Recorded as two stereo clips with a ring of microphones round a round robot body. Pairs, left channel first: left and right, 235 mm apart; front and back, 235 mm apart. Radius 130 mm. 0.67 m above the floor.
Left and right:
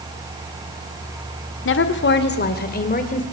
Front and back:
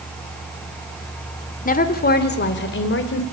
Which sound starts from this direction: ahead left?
A woman speaking, at 1.6 s.